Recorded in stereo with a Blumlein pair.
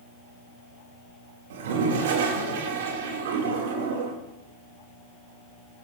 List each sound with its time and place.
1.5 s a toilet flushing: 55° right, 3 m